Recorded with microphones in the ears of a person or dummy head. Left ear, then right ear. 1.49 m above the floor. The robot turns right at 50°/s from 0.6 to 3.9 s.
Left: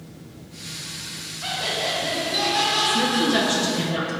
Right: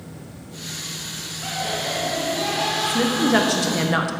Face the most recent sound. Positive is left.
turn(degrees=-115)